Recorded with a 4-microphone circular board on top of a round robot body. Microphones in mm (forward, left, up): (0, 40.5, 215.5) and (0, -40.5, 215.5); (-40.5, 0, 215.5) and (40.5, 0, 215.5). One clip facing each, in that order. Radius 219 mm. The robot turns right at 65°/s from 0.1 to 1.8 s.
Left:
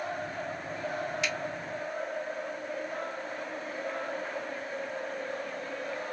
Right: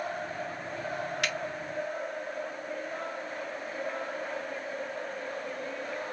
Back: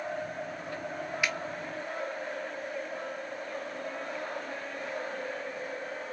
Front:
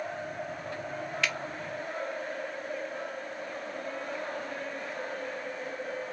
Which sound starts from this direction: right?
A finger snap, at 1.2 s.